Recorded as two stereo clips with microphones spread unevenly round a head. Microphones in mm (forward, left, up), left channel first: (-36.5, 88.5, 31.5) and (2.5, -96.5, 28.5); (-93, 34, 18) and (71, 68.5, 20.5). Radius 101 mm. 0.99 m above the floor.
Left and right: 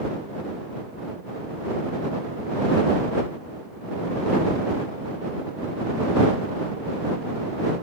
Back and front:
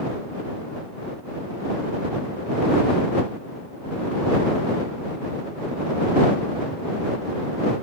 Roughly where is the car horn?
I don't hear a car horn.